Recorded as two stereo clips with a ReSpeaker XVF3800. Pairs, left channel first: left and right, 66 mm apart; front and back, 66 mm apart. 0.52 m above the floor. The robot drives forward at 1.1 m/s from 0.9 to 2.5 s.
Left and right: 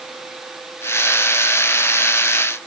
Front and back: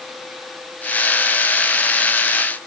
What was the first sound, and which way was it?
Only background noise.